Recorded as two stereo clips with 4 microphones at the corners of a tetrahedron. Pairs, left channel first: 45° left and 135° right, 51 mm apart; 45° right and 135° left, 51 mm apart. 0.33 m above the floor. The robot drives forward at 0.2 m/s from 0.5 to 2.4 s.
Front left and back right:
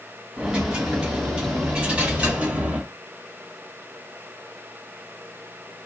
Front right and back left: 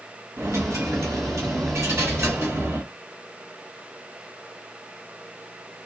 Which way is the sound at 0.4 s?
150° left.